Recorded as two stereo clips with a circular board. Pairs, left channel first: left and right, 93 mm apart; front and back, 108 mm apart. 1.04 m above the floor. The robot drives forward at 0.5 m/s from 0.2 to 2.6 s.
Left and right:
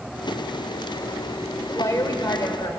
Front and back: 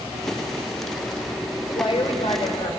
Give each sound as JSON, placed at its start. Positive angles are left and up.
{"t": 1.7, "sound": "a woman speaking", "azimuth_deg": 30, "distance_m": 4.5}